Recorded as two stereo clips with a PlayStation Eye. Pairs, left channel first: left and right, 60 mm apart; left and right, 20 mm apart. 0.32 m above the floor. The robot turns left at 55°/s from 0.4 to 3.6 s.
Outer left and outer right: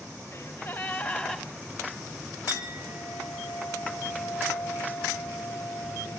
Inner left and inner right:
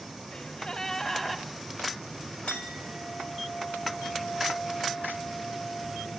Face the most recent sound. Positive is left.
turn(degrees=40)